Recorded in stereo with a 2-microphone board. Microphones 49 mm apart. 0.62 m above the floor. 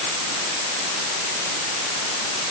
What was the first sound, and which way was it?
Only background noise.